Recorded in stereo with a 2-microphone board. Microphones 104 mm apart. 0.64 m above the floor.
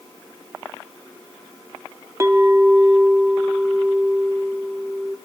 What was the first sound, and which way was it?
A clink, 25° right (ahead or behind).